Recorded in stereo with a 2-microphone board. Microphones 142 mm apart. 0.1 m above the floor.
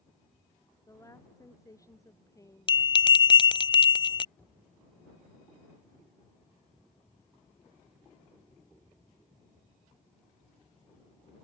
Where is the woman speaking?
20° left (ahead or behind).